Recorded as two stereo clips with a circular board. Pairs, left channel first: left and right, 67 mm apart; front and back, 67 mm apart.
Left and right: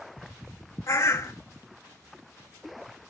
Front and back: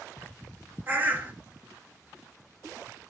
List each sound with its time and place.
0.9 s a bird: 120° left, 1.1 m